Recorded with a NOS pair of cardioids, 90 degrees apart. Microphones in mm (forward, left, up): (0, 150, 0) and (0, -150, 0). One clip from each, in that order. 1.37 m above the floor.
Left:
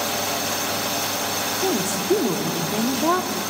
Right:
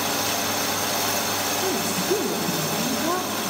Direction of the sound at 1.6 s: 30° left.